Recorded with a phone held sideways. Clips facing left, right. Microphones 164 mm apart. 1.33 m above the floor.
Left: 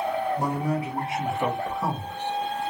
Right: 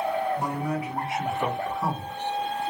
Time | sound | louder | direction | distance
0.4 | a man speaking | left 2 dB | 40° left (ahead or behind) | 1.2 m